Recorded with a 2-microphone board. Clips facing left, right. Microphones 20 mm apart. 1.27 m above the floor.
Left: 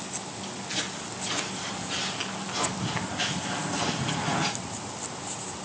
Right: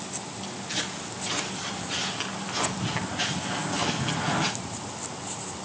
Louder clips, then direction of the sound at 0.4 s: Right 1 dB; 15° right (ahead or behind).